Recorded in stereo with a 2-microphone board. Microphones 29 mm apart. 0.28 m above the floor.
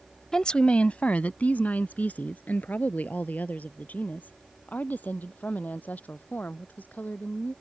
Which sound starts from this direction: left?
A woman speaking, at 0.3 s.